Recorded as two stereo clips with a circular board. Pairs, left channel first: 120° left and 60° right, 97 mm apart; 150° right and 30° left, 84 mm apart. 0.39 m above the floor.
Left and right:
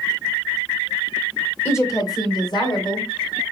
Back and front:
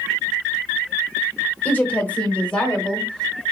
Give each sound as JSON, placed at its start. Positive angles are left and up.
{"t": 1.6, "sound": "a woman speaking", "azimuth_deg": 160, "distance_m": 0.9}